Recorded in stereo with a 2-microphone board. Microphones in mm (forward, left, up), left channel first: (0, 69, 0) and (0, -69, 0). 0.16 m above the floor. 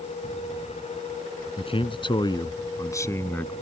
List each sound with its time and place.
1.6 s a man speaking: 45° left (ahead or behind); by 3.5 s 15° left (ahead or behind)